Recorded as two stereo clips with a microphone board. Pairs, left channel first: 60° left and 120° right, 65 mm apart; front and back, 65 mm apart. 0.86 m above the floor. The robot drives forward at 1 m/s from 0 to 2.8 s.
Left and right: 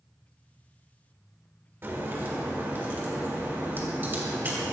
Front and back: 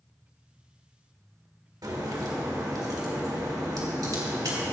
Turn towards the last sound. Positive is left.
turn(degrees=-175)